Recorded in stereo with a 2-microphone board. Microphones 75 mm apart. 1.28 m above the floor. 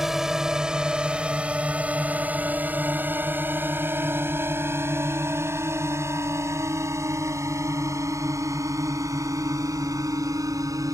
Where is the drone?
5° right (ahead or behind); by 10.9 s 50° right (ahead or behind).